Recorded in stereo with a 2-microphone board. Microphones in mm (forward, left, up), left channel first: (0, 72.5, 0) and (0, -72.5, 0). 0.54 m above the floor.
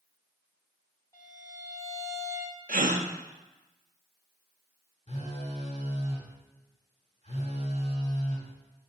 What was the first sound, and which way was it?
A violin, 25° left (ahead or behind).